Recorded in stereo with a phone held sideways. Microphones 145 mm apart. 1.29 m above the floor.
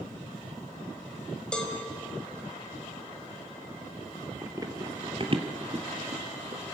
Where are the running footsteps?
20° right (ahead or behind), 1.7 m; by 6.6 s 55° right (ahead or behind), 2 m.